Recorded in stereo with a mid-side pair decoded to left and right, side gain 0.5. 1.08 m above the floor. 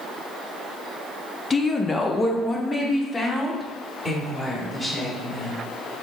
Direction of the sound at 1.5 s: 25° left.